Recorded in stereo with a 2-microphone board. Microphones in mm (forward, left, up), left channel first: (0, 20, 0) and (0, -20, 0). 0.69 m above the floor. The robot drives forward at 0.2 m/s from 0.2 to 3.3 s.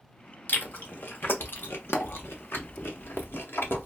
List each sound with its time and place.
0.5 s chewing: 55° left (ahead or behind), 0.8 m; by 3.9 s 80° left, 0.6 m